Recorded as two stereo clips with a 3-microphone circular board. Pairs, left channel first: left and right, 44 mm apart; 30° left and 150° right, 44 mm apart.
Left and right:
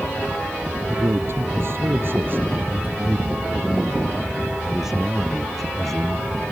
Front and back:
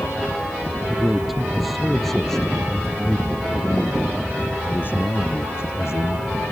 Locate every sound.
0.9 s a man speaking: 65° right; by 6.4 s 10° left